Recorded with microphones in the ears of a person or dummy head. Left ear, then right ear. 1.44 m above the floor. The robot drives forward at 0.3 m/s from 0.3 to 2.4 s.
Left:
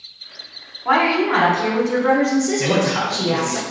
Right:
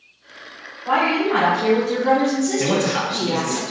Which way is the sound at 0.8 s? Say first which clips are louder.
Left 2 dB; 70° left (ahead or behind).